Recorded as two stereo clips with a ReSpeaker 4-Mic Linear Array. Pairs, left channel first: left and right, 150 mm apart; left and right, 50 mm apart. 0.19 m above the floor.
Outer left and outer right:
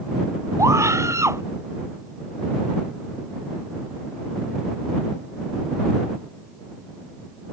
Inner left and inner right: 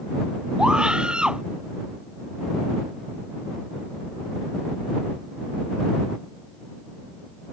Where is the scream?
20° right (ahead or behind).